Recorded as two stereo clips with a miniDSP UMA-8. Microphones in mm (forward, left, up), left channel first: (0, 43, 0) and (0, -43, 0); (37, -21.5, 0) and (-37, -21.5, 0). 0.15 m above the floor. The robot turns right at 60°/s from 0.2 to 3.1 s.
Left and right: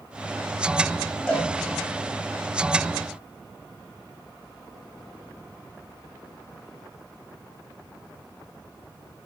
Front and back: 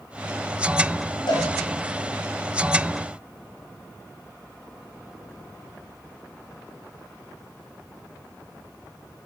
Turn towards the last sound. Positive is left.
turn(degrees=120)